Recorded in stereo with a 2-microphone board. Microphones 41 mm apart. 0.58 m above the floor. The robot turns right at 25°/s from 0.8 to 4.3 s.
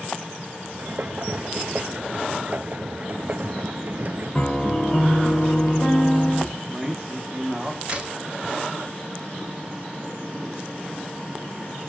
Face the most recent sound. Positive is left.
turn(degrees=-30)  # may be behind; listen again after turning